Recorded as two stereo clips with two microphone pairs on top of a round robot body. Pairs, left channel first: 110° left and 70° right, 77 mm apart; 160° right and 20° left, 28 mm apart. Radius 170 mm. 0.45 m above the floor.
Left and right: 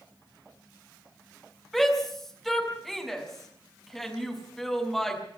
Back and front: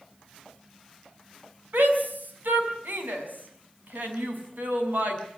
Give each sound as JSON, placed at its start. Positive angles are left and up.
{"t": 1.7, "sound": "a shout", "azimuth_deg": 20, "distance_m": 5.5}